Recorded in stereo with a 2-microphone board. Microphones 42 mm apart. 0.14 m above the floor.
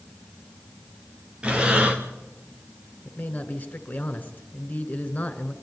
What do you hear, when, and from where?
1.4 s breathing: 25° right (ahead or behind), 2.5 m
3.0 s a man speaking: 40° left (ahead or behind), 2 m